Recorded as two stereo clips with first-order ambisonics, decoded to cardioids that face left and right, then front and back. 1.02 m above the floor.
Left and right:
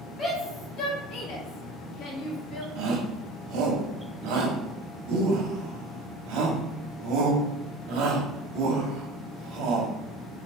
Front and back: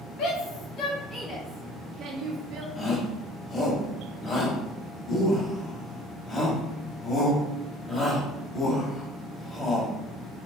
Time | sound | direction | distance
0.2 | a shout | 30° left | 1.5 m
2.8 | a shout | 70° right | 1.3 m